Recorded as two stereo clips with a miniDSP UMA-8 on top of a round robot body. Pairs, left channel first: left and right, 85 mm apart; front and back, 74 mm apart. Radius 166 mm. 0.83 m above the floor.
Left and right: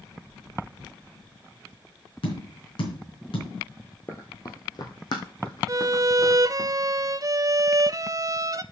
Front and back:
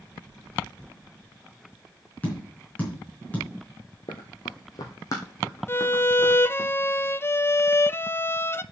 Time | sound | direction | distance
2.2 | tapping | 70° left | 4 m
4.1 | running footsteps | 25° left | 1.0 m
5.7 | a violin | 55° right | 0.7 m